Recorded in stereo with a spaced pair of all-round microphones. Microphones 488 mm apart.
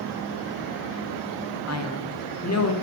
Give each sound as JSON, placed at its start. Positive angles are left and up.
{"t": 1.7, "sound": "a man speaking", "side_deg": 35, "distance_m": 0.8}